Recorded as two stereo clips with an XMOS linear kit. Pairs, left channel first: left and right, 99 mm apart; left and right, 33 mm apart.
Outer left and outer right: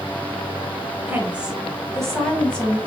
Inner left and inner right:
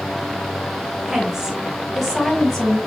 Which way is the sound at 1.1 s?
20° right (ahead or behind).